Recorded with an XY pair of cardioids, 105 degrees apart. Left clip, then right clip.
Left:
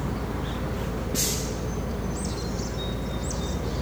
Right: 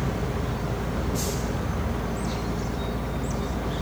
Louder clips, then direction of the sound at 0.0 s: Right 2 dB; 65° right.